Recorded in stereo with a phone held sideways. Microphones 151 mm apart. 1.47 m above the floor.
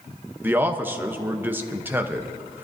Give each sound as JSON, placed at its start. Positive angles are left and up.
{"t": 0.4, "sound": "a man speaking", "side_deg": -10, "distance_m": 0.9}